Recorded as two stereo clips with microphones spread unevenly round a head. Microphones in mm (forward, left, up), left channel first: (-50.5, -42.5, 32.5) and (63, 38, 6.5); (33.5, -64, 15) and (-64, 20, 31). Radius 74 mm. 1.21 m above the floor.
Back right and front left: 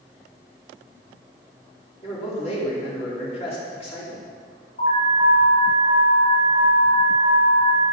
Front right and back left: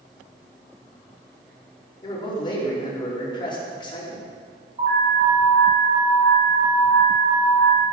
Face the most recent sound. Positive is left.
turn(degrees=180)